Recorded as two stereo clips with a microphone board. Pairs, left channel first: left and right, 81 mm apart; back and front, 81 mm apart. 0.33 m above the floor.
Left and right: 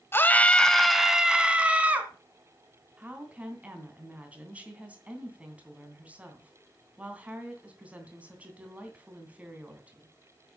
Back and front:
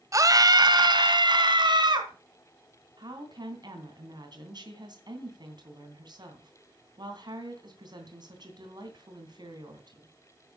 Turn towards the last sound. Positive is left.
turn(degrees=-20)